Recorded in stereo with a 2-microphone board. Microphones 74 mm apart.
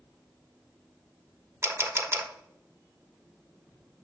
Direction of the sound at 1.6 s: 35° right (ahead or behind).